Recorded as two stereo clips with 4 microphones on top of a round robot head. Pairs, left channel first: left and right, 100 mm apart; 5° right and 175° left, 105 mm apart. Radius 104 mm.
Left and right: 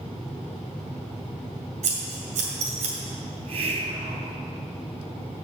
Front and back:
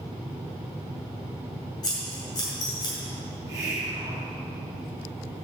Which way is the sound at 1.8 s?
65° right.